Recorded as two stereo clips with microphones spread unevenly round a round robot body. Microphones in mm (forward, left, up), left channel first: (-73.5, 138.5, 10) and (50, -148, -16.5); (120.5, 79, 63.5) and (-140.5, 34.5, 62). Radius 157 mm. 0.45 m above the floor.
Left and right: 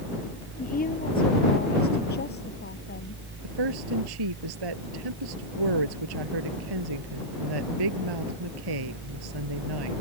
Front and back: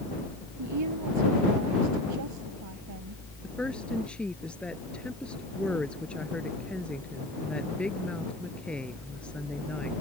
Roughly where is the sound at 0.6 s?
Behind.